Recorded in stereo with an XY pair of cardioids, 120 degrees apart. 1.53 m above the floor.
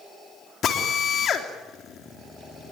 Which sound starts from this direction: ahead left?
A drill, at 0.6 s.